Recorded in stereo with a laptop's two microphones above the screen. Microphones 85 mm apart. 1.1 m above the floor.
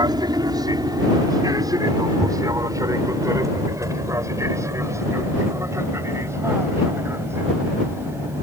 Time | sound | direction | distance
0.0 | an aircraft | 55° right (ahead or behind) | ?